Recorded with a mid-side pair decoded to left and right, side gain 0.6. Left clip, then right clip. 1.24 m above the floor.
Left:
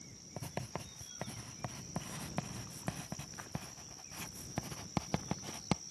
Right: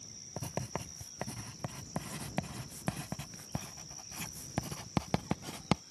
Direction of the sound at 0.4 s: 25° right.